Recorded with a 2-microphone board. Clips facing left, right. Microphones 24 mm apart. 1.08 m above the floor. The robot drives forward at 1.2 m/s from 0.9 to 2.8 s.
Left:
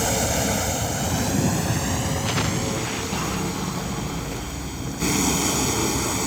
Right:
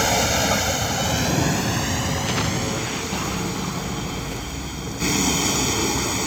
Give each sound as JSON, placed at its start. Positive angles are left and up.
{"t": 0.0, "sound": "a vehicle", "side_deg": -35}